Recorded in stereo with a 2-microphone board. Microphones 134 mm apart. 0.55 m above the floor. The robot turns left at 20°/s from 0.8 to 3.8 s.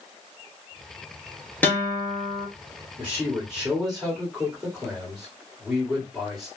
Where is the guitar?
15° left (ahead or behind), 1.1 m; by 2.5 s 30° left (ahead or behind), 1.1 m.